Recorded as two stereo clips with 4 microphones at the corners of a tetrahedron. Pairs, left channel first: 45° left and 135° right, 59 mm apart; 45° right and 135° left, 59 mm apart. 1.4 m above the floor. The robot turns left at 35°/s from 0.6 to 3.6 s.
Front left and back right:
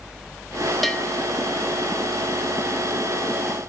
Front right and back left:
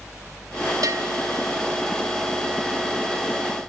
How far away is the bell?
About 2.5 m.